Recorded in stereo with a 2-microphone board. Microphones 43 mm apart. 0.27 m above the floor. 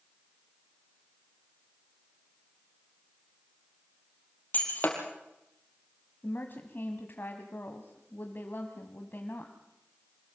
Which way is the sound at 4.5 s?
40° left (ahead or behind).